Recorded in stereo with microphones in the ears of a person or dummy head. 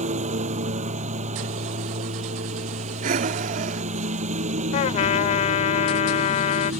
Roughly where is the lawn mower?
Right.